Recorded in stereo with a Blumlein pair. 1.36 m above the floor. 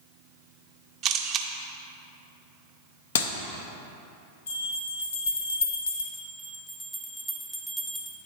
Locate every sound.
1.0 s a camera shutter: 30° right, 0.5 m
3.1 s a clap: 55° left, 0.5 m
4.5 s a bell: 65° left, 1.0 m
6.1 s a bell: straight ahead, 0.7 m